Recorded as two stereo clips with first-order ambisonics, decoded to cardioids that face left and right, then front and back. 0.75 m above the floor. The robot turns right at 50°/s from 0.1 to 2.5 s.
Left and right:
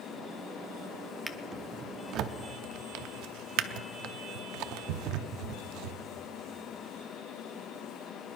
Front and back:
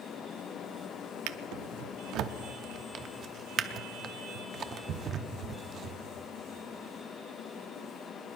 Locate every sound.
1.3 s a drawer: straight behind, 0.6 m; by 6.0 s 120° right, 0.6 m